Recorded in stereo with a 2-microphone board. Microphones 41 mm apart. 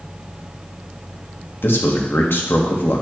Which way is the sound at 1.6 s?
65° left (ahead or behind).